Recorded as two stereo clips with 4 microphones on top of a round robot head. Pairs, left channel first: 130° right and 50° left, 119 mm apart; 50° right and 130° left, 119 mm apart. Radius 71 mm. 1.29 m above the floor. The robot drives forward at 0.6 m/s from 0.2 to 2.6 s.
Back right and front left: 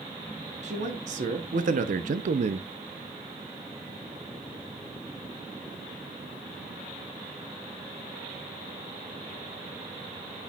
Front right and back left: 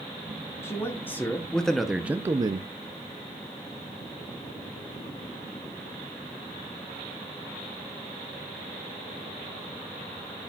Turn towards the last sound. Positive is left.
turn(degrees=85)